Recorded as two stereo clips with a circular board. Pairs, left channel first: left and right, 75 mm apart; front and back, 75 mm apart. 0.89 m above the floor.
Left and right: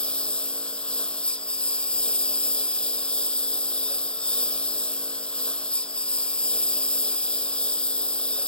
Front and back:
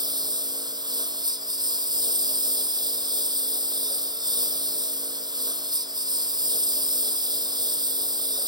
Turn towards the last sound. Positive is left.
turn(degrees=165)